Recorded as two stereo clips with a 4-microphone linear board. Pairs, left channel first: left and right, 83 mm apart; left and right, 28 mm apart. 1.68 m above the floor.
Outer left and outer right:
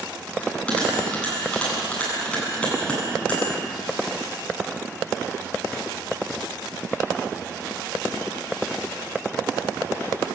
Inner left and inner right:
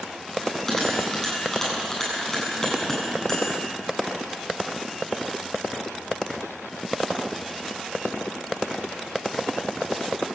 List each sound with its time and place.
0.4 s a bell: 15° left (ahead or behind), 9 m